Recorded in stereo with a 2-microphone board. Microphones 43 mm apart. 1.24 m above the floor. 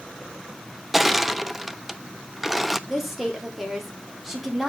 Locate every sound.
0.9 s crushing: 5° right (ahead or behind), 0.6 m
2.9 s a woman speaking: 5° right (ahead or behind), 3 m